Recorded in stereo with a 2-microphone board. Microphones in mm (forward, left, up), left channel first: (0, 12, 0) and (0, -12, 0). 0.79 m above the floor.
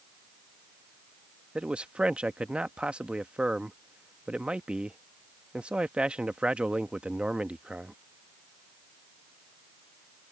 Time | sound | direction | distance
1.6 | a man speaking | 50° right (ahead or behind) | ?